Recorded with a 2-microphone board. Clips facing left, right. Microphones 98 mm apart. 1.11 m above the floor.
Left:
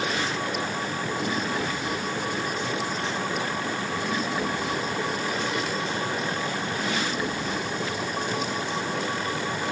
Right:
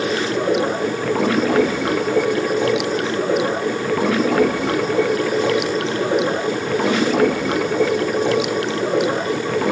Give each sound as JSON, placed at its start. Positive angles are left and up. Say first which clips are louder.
{"t": 0.0, "sound": "running water", "louder": "right 8 dB", "side_deg": -90}